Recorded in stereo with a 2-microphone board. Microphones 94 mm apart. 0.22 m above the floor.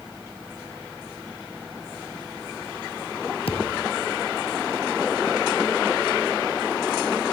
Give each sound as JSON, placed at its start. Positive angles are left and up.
{"t": 3.5, "sound": "a thud", "side_deg": 85}